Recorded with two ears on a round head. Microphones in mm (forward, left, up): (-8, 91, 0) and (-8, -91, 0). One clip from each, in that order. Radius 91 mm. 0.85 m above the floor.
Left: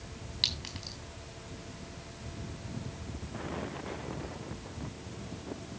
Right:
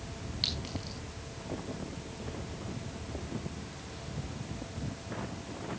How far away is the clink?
About 4 m.